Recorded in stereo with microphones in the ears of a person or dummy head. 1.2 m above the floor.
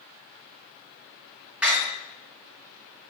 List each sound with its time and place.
1.6 s a door slam: 5° right (ahead or behind), 1.6 m